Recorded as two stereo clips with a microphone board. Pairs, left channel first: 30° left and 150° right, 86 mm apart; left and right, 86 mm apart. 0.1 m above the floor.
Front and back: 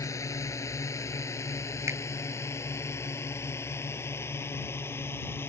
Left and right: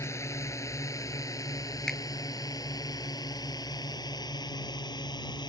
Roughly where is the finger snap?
Behind.